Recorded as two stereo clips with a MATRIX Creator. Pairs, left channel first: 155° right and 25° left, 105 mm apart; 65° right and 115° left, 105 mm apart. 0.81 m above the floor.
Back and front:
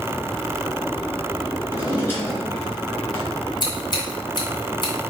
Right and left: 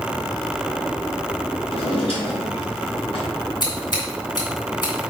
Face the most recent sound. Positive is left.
turn(degrees=-110)